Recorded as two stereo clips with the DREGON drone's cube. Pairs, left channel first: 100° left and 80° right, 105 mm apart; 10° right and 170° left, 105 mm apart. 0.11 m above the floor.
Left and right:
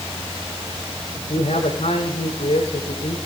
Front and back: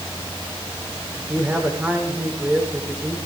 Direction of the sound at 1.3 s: 95° left.